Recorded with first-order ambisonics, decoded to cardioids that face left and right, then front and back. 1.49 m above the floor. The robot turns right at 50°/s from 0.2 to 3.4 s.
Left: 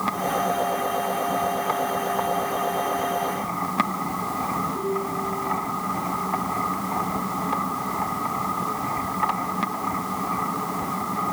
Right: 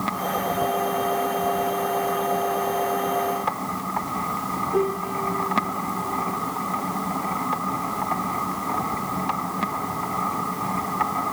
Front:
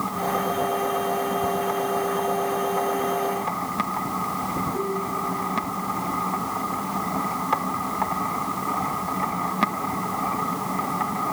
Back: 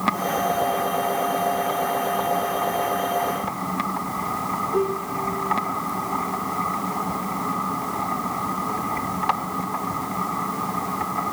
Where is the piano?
125° right, 4 m.